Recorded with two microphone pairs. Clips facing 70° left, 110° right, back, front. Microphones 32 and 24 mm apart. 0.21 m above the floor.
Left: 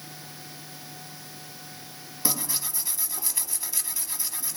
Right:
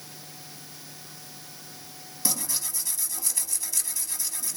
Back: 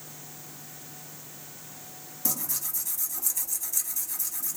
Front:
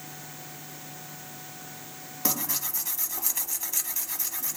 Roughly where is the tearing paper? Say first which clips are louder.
Left 1 dB, front 4 dB; ahead.